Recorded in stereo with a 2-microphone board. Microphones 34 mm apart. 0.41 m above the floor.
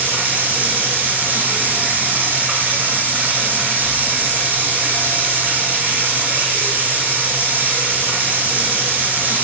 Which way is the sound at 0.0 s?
60° right (ahead or behind).